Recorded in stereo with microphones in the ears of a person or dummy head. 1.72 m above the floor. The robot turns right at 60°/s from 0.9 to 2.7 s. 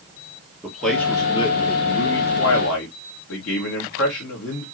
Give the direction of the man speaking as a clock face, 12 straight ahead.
12 o'clock.